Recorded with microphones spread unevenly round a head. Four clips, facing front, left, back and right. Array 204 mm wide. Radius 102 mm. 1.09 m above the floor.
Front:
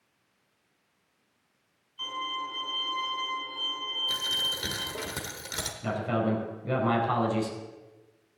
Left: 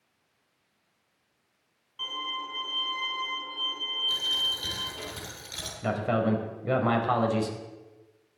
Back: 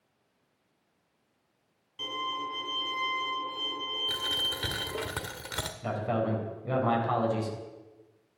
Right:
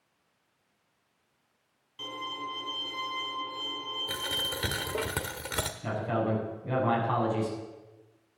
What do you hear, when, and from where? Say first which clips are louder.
2.0 s a violin: left 1 dB, even; 155° right, 2 m
4.1 s a dropped coin: right 2 dB, even; 100° right, 1.2 m
5.8 s a man speaking: left 4 dB, front 2 dB; 80° left, 4.5 m